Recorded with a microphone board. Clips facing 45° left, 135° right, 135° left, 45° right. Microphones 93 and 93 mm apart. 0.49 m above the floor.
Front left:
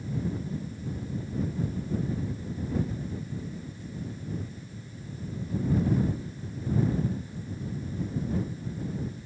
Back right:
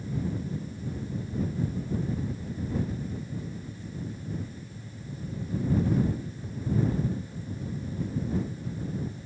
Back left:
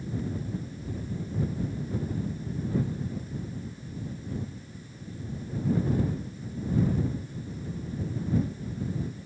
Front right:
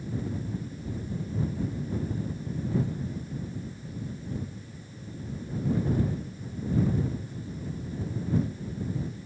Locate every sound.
Only background noise.